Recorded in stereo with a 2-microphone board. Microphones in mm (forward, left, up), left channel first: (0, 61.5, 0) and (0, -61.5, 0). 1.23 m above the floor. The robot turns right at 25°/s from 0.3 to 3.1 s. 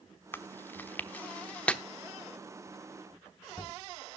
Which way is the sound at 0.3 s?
15° left (ahead or behind).